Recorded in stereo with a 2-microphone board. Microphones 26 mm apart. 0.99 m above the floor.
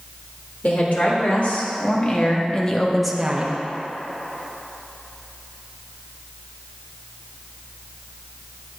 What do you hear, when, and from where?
0.6 s a woman speaking: 65° left (ahead or behind), 3.5 m; by 3.5 s 40° right (ahead or behind), 0.9 m